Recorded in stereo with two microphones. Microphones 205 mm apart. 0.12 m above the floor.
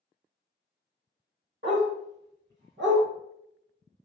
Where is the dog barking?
70° right (ahead or behind), 1.6 m.